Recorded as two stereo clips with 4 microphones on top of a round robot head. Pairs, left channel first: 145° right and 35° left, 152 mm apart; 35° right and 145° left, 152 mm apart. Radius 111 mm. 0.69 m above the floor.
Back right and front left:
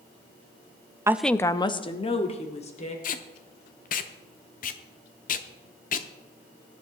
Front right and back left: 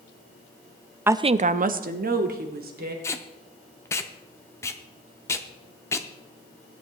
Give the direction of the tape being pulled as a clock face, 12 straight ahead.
4 o'clock.